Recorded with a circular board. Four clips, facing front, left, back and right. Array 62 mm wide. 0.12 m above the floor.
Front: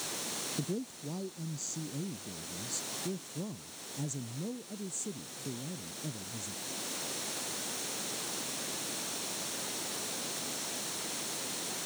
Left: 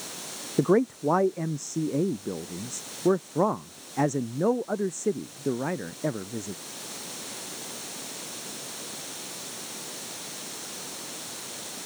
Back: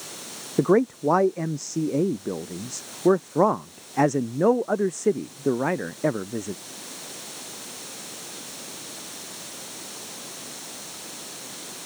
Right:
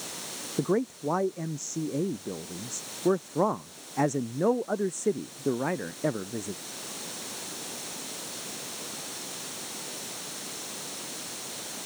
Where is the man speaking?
160° left; by 6.5 s 170° right.